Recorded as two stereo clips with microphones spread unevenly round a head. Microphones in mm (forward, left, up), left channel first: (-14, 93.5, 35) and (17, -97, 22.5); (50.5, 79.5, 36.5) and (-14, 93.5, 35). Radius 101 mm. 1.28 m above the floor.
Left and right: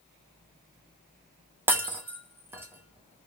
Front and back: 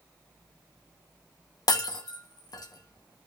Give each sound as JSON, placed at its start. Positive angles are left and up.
{"t": 1.7, "sound": "breaking glass", "azimuth_deg": 0, "distance_m": 0.9}